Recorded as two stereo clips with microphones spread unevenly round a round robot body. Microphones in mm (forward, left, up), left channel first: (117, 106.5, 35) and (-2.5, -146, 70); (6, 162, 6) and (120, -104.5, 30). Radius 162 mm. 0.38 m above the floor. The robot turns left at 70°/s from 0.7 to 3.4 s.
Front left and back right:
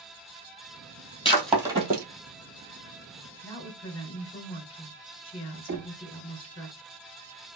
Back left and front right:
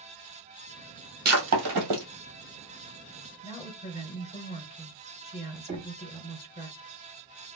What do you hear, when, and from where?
1.2 s breaking glass: 10° right, 1.6 m; by 2.0 s 65° right, 1.6 m
3.4 s a woman speaking: 95° left, 1.2 m
5.7 s knocking: 125° right, 0.8 m